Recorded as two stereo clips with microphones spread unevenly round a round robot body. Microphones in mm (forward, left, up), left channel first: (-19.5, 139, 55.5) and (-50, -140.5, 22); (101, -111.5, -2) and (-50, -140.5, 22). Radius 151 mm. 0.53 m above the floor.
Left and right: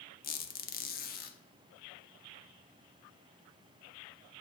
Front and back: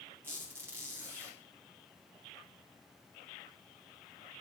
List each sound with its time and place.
0.2 s a squeak: 115° left, 0.5 m